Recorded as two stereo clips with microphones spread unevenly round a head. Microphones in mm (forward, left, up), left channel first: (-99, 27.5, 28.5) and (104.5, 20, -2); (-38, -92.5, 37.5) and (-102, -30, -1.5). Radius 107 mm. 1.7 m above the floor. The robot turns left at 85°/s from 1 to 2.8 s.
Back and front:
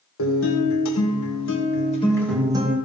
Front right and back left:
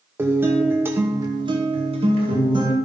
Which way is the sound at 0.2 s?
160° right.